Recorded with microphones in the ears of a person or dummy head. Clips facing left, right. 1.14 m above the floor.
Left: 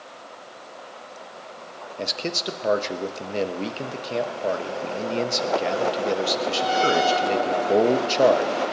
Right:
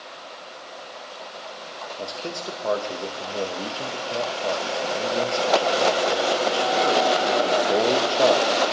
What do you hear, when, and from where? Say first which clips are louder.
2.0 s a man speaking: left 4 dB; 30° left (ahead or behind), 0.8 m